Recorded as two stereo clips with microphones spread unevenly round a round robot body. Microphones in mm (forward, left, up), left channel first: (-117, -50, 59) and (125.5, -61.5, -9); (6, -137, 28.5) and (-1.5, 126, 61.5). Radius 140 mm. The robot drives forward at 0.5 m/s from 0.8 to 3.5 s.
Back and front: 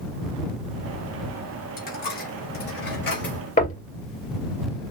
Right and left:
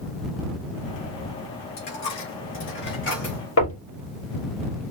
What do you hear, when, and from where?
1.8 s a dropped coin: 130° right, 4 m; by 3.4 s 140° right, 4.5 m
3.6 s knocking: 120° right, 2.5 m